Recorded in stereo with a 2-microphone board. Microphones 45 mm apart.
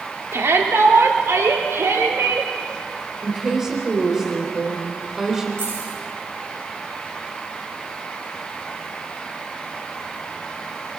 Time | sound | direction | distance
0.3 | a shout | 70° right (ahead or behind) | 2.5 m
3.2 | a woman speaking | 10° right (ahead or behind) | 3.5 m
5.6 | keys jangling | 70° right (ahead or behind) | 10 m